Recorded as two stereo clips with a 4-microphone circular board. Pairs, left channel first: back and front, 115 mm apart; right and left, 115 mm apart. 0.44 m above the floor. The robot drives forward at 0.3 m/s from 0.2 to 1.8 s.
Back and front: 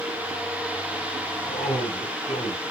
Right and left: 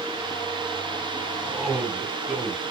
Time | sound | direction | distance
1.4 | a man speaking | 175° left | 4.5 m